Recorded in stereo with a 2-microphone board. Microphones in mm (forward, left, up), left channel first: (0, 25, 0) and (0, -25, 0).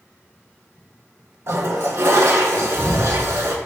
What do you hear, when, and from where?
1.5 s a toilet flushing: 65° right (ahead or behind), 0.5 m